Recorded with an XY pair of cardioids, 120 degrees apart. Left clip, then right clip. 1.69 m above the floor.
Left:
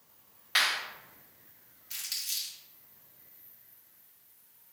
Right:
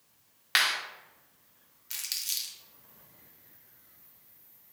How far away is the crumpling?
About 1.1 m.